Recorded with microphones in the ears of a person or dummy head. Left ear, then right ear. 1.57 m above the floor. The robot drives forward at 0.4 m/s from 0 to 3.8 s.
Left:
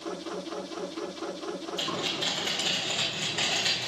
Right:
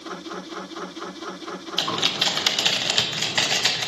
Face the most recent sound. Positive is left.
turn(degrees=-60)  # may be behind; listen again after turning